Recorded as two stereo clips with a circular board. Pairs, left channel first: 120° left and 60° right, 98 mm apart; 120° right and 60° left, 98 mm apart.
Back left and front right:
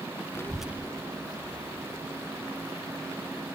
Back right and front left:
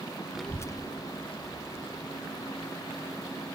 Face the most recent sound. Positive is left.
turn(degrees=-95)